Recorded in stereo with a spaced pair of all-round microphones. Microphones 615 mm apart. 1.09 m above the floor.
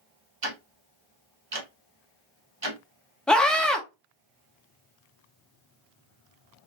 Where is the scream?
Centre (ahead or behind), 1.0 m.